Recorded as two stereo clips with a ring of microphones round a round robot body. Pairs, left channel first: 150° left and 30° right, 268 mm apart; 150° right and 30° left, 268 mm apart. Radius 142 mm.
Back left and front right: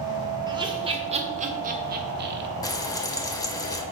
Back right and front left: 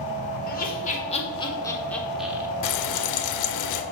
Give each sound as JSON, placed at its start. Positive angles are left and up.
{"t": 0.5, "sound": "laughter", "azimuth_deg": -100, "distance_m": 1.5}
{"t": 2.6, "sound": "frying", "azimuth_deg": -130, "distance_m": 0.6}